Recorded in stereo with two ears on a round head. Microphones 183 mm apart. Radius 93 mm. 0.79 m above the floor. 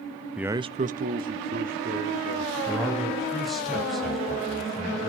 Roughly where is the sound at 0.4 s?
Centre.